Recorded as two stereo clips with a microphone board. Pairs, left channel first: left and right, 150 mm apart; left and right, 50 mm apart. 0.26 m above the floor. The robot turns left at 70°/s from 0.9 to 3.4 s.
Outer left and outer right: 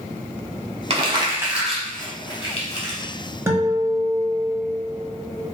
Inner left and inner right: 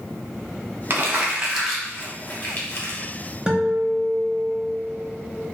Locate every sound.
0.9 s crumpling: 40° right (ahead or behind), 0.9 m; by 3.0 s 50° left (ahead or behind), 0.9 m
3.5 s a guitar: 15° right (ahead or behind), 0.7 m